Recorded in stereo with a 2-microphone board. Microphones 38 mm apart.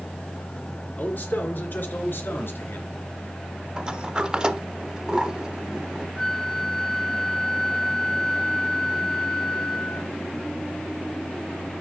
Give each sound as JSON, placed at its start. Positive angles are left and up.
{"t": 1.0, "sound": "a man speaking", "side_deg": 50, "distance_m": 3.5}
{"t": 3.8, "sound": "a sliding door", "side_deg": -25, "distance_m": 0.8}
{"t": 6.2, "sound": "a flute", "side_deg": 10, "distance_m": 0.5}